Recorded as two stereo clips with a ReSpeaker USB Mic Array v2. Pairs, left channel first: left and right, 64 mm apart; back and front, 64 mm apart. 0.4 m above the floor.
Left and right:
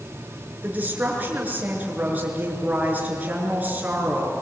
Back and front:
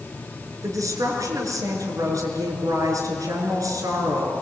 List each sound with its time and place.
0.6 s a woman speaking: 25° right, 6.5 m